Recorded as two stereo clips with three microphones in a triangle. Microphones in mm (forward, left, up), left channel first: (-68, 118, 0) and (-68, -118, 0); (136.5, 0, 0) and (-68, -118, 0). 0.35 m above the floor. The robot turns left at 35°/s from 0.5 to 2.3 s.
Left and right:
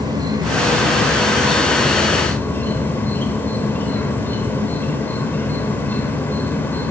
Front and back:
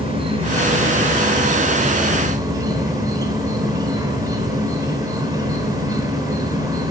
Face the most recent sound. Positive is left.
turn(degrees=160)